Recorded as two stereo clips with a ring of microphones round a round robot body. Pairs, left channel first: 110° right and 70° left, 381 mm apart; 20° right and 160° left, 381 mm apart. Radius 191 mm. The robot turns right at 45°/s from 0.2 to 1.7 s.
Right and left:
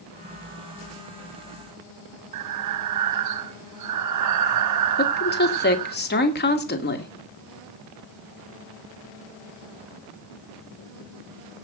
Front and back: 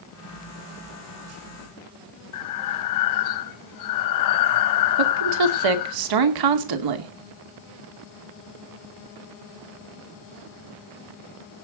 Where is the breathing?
20° left, 0.8 m.